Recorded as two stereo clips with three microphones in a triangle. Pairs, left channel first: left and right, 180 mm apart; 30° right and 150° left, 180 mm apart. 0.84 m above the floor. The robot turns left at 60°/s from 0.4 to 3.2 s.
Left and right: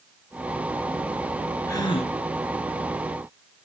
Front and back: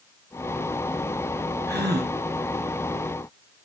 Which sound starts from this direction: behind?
A gasp, at 1.7 s.